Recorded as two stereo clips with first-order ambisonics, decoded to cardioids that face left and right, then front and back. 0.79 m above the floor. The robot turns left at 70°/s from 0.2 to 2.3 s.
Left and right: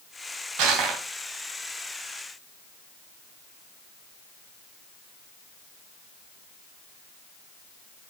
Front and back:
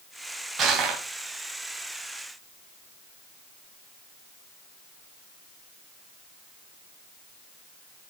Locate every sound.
0.6 s crushing: 120° right, 2.5 m; by 1.0 s 150° right, 2.5 m